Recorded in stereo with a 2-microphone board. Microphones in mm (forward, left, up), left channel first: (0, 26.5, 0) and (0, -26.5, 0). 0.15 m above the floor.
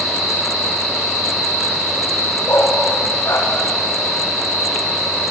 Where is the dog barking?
70° left (ahead or behind), 6.5 m.